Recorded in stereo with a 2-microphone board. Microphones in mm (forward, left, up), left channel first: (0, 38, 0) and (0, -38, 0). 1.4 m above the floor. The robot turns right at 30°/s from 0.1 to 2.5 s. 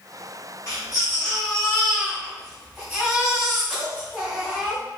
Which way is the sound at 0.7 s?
120° left.